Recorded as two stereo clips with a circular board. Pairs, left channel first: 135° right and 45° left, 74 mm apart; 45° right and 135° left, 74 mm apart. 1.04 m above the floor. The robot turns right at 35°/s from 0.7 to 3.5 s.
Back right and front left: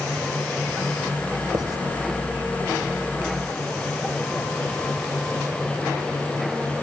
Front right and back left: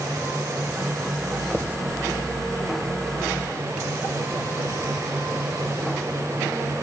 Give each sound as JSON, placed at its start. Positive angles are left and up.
{"t": 1.5, "sound": "writing", "azimuth_deg": 65, "distance_m": 2.0}